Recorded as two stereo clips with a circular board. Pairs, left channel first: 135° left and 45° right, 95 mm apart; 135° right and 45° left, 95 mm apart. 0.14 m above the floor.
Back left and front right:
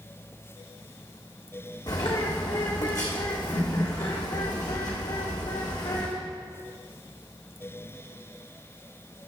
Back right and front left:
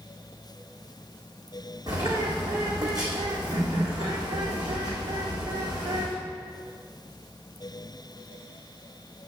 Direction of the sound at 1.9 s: 90° left.